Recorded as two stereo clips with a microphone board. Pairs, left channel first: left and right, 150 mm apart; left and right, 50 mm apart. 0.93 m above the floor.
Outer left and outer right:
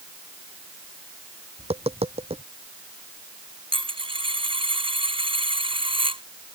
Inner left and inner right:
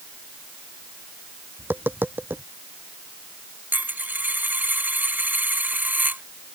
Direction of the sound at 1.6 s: 40° right (ahead or behind).